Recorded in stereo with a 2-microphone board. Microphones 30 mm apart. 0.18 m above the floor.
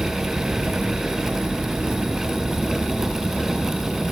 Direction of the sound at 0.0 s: 35° right (ahead or behind).